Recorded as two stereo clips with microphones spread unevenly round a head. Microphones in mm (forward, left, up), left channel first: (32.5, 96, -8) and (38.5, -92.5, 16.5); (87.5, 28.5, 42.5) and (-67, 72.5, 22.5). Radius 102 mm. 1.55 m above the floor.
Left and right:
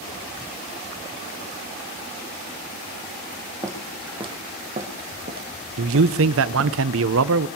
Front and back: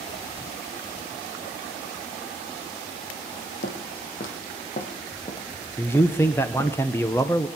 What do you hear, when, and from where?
3.6 s footsteps: 20° right, 2.5 m; by 6.7 s 105° right, 3.5 m
5.8 s a man speaking: 95° right, 0.8 m